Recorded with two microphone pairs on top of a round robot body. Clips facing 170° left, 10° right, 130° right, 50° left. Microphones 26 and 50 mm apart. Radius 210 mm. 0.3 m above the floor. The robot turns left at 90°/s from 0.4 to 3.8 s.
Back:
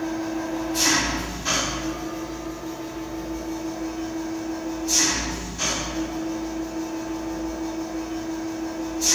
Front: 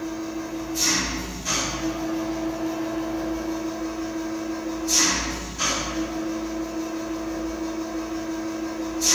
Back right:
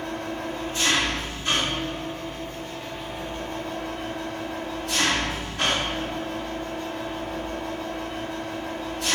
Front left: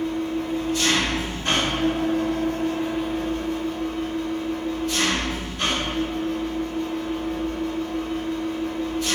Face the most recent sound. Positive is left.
turn(degrees=-105)